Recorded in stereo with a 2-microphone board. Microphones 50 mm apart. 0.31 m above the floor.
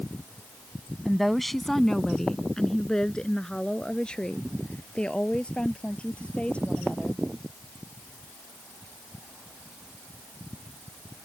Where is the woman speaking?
Centre (ahead or behind); by 7.2 s 25° left (ahead or behind).